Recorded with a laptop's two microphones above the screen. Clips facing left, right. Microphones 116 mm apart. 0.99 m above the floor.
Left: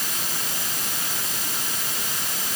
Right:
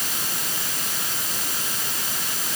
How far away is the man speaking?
No man speaking in this recording.